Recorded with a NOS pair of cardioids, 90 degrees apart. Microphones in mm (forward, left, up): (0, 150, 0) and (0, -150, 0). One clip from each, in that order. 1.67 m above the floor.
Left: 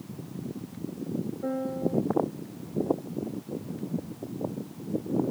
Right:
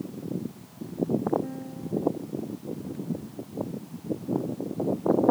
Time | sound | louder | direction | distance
1.4 | a piano | left 8 dB | 55° left | ?